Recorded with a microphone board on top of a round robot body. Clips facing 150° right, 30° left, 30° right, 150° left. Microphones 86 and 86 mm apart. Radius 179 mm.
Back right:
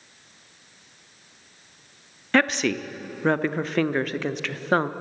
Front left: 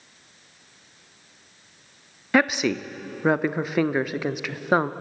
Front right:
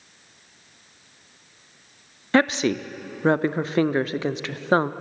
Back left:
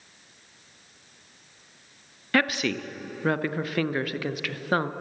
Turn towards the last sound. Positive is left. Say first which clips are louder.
# front left 1 dB, front right 5 dB
turn(degrees=-40)